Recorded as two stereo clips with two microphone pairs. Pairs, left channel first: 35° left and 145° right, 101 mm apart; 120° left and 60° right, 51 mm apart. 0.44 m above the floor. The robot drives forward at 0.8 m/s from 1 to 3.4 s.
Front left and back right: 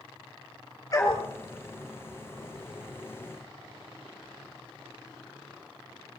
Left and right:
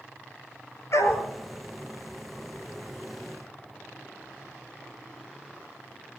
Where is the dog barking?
95° left, 4 m; by 1.3 s 100° left, 4 m.